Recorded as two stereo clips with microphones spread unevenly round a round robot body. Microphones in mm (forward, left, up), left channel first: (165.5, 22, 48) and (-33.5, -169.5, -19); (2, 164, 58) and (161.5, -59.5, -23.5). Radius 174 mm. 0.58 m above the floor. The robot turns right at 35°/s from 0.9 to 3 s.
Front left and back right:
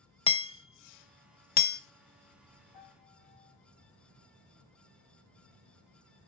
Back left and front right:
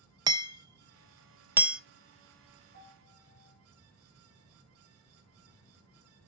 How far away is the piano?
About 5.5 m.